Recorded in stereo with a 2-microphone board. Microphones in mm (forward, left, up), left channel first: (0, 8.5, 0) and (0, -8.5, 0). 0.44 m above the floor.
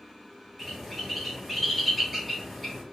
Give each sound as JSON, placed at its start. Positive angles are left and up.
{"t": 0.6, "sound": "a bird", "side_deg": 0, "distance_m": 1.5}